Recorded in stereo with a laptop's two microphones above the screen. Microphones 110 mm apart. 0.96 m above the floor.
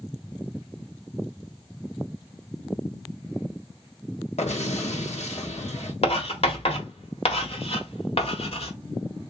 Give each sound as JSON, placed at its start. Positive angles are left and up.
{"t": 4.4, "sound": "an explosion", "side_deg": 85, "distance_m": 1.0}
{"t": 6.0, "sound": "writing", "side_deg": 65, "distance_m": 1.1}